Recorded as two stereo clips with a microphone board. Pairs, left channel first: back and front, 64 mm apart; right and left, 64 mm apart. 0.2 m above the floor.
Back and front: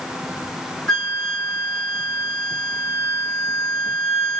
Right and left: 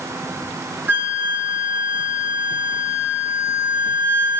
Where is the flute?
105° left, 1.8 m.